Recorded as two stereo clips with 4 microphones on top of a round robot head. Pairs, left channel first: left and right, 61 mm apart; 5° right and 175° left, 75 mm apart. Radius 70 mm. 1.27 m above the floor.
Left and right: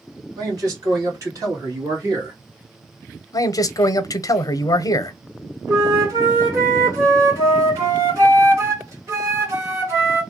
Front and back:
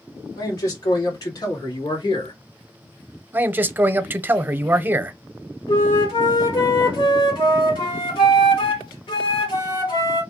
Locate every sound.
0.3 s a man speaking: 55° right, 2.5 m; by 2.4 s 35° right, 1.3 m
3.3 s a man speaking: 110° left, 0.6 m
5.7 s a flute: 35° right, 1.2 m